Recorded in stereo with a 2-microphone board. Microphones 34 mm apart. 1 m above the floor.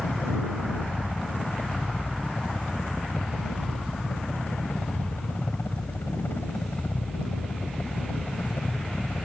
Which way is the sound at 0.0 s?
75° left (ahead or behind).